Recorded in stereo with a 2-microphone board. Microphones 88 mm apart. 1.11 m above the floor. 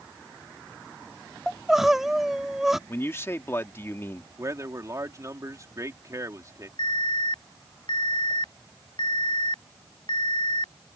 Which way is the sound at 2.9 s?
30° left (ahead or behind).